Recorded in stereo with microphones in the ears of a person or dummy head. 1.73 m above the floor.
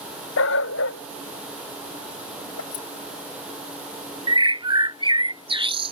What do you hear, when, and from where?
0.4 s a dog barking: 75° left (ahead or behind)
2.7 s keys jangling: 65° left (ahead or behind)
4.3 s a bird: 30° right (ahead or behind)